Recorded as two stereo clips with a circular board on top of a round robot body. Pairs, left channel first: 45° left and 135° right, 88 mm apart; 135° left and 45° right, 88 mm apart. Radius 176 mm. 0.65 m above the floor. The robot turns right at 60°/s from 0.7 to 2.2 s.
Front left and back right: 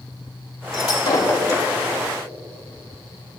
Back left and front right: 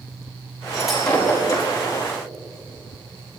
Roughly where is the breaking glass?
Ahead left.